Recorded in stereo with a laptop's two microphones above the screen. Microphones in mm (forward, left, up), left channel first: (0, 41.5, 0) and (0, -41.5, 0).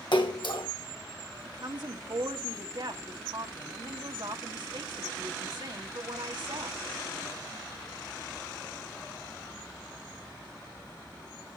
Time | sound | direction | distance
0.1 | a splash | 75° left (ahead or behind) | 2 m
1.4 | a woman speaking | 65° right (ahead or behind) | 1.7 m